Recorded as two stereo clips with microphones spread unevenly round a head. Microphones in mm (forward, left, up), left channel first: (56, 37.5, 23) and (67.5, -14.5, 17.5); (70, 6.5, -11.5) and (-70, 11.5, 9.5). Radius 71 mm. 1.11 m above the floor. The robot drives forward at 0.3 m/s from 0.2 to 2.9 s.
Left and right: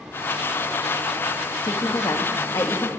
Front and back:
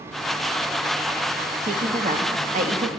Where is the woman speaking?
130° left, 1.8 m; by 2.9 s 140° left, 2 m.